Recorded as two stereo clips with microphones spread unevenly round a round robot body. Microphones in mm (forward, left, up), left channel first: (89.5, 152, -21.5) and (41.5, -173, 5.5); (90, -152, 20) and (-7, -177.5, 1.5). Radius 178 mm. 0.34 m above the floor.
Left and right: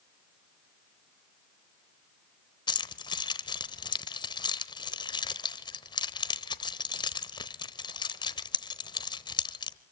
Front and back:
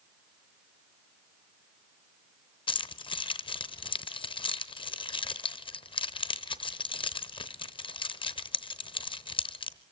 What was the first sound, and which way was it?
Keys jangling, 15° left.